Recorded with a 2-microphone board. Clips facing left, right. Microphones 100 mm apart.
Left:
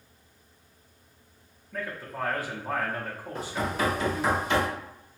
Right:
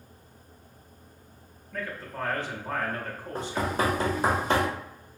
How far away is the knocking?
About 1.1 m.